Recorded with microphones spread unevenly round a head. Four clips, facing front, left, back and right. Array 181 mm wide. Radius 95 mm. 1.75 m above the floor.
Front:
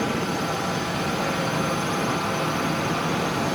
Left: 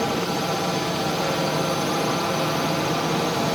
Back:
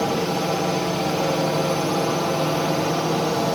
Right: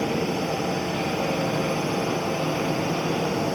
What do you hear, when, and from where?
0.0 s a drone: 175° right